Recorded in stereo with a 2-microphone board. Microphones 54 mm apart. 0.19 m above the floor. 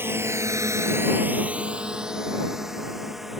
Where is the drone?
45° right (ahead or behind); by 3.4 s 5° right (ahead or behind).